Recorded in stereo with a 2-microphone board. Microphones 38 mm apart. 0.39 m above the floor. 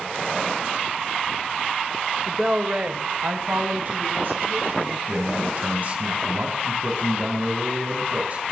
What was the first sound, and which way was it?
A woman speaking, centre (ahead or behind).